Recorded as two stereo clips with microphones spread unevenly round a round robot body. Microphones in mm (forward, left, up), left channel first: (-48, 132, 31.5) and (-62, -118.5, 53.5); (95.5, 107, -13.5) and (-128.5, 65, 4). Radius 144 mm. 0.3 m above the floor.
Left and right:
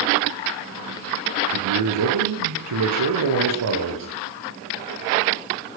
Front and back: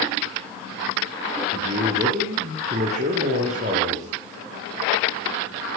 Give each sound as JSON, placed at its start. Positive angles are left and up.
{"t": 1.5, "sound": "a man speaking", "azimuth_deg": -100, "distance_m": 8.5}